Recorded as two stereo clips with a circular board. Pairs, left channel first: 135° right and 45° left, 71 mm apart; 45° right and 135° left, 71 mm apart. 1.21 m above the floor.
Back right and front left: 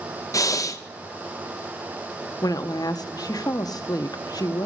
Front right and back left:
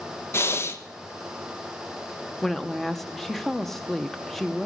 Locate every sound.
0.3 s breathing: 100° right, 0.8 m
2.4 s a woman speaking: 135° right, 0.8 m